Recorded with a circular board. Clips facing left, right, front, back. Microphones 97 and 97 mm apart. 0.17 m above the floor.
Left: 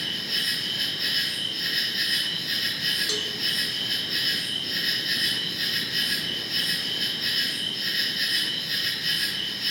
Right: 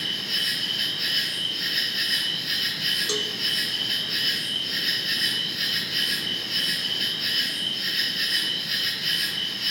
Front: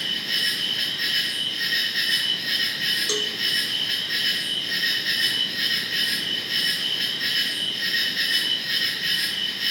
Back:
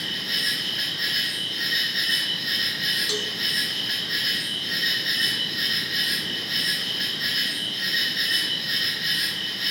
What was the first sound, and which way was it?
An insect, 105° right.